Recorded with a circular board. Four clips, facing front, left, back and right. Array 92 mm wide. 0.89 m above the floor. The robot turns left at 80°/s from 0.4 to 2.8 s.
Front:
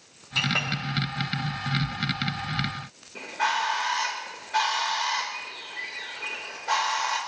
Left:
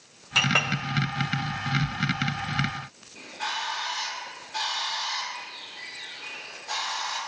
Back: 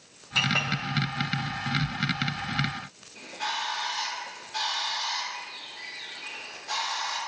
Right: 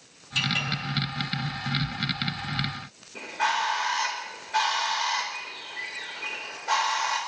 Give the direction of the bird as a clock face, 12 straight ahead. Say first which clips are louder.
Right 7 dB, front 7 dB; 1 o'clock.